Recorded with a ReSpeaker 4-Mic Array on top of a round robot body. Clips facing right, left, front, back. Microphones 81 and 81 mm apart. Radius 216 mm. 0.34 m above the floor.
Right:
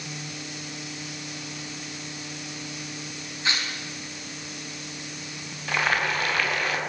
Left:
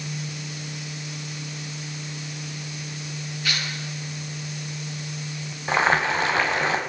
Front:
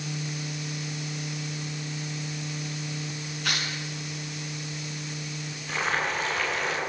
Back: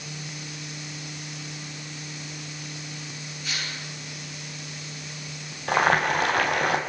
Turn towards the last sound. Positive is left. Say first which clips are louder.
# left 4 dB, back 7 dB
turn(degrees=155)